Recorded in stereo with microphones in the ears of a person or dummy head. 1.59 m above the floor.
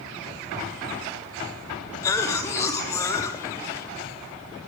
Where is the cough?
20° left (ahead or behind), 0.7 m.